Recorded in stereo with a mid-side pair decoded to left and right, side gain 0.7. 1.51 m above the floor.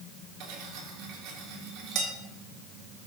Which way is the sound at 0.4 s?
60° right.